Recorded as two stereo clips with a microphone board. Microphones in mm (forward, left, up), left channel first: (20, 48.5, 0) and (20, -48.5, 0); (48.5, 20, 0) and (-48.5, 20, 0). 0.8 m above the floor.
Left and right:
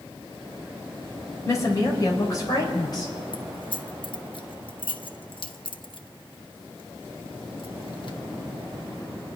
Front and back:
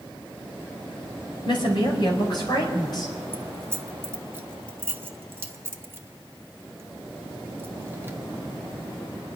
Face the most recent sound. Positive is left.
turn(degrees=115)